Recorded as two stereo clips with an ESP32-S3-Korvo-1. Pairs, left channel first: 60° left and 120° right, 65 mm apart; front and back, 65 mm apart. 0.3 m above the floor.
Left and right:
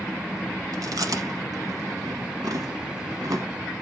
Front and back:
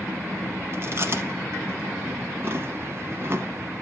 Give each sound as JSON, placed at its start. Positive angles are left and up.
{"t": 0.7, "sound": "chewing", "azimuth_deg": -130, "distance_m": 0.9}